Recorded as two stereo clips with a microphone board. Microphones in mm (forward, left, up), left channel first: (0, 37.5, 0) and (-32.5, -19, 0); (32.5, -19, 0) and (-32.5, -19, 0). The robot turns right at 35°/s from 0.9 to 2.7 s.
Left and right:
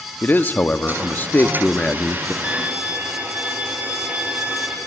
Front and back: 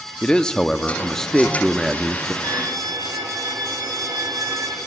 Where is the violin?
165° left, 3 m; by 4.8 s 175° left, 3 m.